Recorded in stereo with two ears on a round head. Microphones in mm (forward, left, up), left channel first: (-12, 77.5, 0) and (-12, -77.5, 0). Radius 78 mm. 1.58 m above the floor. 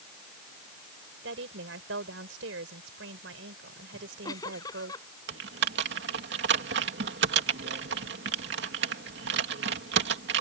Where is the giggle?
20° left (ahead or behind).